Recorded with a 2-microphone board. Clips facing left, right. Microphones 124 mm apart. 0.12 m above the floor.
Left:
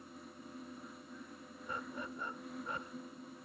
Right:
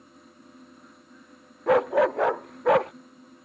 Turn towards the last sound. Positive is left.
turn(degrees=-85)